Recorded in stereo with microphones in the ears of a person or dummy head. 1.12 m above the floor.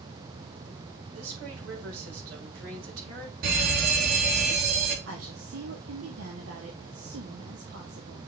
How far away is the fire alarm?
About 3 m.